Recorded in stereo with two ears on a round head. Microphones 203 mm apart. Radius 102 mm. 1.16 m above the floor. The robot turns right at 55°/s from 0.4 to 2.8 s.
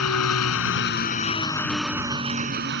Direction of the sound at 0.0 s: 105° left.